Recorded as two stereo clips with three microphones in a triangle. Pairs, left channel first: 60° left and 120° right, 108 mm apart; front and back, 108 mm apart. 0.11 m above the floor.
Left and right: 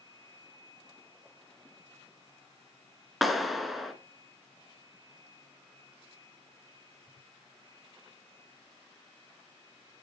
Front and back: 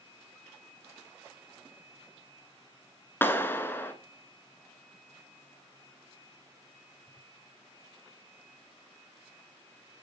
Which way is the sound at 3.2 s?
30° right.